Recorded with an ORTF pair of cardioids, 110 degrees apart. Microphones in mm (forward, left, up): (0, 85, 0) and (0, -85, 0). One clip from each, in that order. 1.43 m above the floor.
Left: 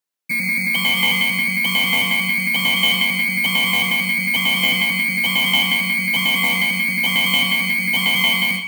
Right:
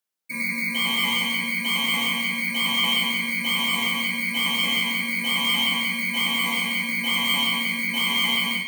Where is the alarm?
60° left, 0.7 m.